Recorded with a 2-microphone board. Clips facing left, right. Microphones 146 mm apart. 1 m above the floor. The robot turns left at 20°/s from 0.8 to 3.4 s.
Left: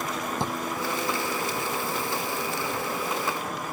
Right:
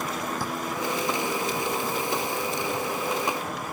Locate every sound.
0.4 s a drawer: 25° left (ahead or behind); by 2.9 s 15° right (ahead or behind)